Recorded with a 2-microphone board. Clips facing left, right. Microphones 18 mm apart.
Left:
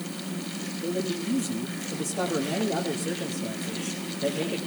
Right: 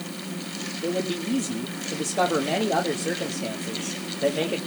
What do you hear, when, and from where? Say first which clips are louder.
0.8 s a man speaking: right 2 dB; 45° right (ahead or behind), 1.0 m